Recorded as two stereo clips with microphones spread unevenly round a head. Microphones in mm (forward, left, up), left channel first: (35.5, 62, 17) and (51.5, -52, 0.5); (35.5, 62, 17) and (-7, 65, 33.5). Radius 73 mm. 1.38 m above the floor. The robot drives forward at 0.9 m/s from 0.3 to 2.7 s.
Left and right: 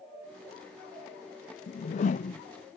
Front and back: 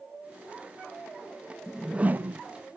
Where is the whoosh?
65° left; by 2.4 s 135° left.